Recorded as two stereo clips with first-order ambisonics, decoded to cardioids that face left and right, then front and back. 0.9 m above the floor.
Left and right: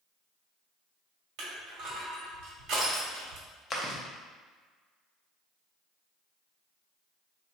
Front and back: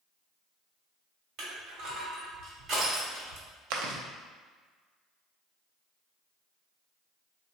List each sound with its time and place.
1.4 s crushing: 125° right, 1.3 m
3.7 s chewing: 160° left, 0.5 m